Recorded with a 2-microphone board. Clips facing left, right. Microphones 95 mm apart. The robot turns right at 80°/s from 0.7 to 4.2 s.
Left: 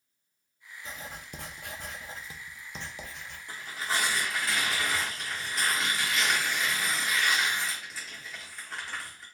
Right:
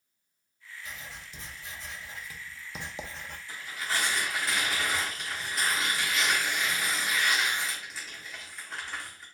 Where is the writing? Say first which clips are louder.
Left 3 dB; 35° left, 0.6 m; by 3.4 s 125° right, 0.6 m.